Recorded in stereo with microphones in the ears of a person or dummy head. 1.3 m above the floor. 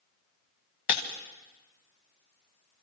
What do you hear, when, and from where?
0.9 s breaking glass: 45° left (ahead or behind), 1.5 m